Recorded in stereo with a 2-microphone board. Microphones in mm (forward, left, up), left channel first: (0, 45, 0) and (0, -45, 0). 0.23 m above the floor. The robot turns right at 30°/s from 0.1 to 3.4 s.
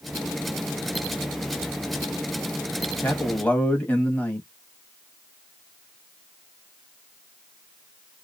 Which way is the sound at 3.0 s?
20° left (ahead or behind).